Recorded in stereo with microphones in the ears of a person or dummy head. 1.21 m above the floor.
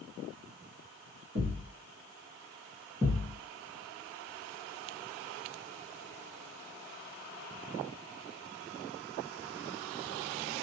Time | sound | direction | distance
1.4 | a thud | 50° right (ahead or behind) | 1.4 m
3.0 | a thud | centre (ahead or behind) | 1.9 m